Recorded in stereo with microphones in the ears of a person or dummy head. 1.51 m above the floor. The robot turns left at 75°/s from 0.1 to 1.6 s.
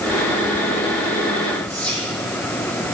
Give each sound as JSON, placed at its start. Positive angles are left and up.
{"t": 1.7, "sound": "whispering", "side_deg": 5, "distance_m": 2.5}